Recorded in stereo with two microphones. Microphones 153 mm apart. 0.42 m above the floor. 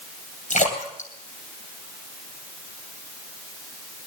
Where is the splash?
55° left (ahead or behind), 3 m.